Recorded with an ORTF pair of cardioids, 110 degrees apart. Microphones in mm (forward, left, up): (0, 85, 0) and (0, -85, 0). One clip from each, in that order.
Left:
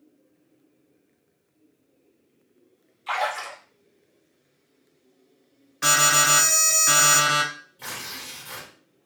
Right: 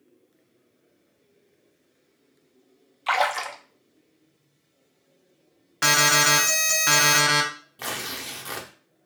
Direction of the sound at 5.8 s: 50° right.